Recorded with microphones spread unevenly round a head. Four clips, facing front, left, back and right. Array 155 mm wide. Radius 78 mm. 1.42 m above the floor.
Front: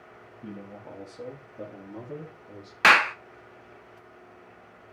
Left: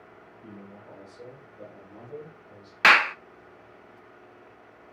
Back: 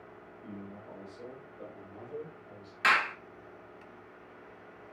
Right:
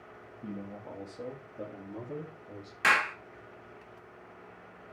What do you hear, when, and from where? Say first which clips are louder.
0.4 s a man speaking: right 5 dB, front 5 dB; 40° right, 2 m; by 2.7 s 35° right, 4 m
2.8 s a clap: left 7 dB, front 8 dB; 45° left, 0.7 m